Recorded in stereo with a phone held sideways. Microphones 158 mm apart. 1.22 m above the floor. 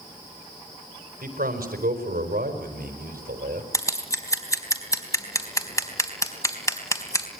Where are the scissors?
20° left (ahead or behind), 3.5 m.